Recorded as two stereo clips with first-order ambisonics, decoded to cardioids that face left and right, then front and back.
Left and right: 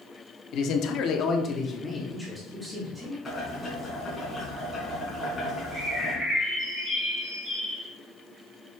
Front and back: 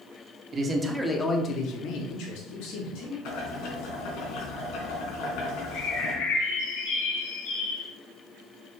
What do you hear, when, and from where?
0.5 s a man speaking: 125° left, 1.0 m; by 3.1 s 5° right, 2 m
3.2 s boiling: 10° left, 3 m
5.7 s a bird: 5° right, 3.5 m